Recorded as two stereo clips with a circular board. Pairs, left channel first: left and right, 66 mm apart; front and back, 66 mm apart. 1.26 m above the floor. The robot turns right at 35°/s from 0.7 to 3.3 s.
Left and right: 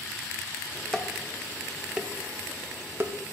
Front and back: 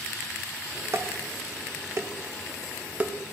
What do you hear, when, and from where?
0.9 s dishes clattering: 165° left, 0.6 m; by 3.1 s 120° right, 0.6 m